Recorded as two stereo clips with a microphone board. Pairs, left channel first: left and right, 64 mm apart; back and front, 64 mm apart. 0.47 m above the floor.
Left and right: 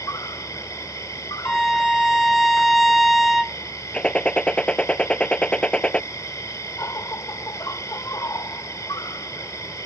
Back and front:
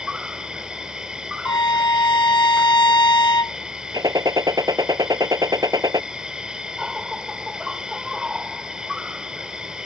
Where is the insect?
75° left.